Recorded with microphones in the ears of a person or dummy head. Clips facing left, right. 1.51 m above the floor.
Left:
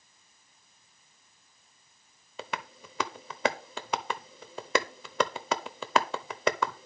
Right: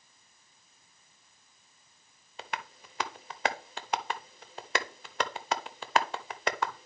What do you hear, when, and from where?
2.4 s tapping: 80° left, 0.7 m